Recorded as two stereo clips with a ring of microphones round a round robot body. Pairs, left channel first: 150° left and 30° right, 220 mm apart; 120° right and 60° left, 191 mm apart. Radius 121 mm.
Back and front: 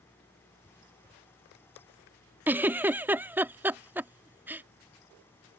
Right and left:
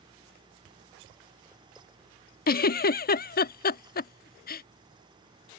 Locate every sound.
2.5 s a giggle: 110° right